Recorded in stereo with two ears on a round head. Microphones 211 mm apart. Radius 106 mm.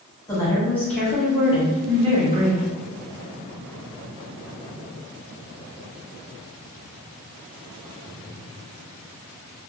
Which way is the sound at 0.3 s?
15° left (ahead or behind).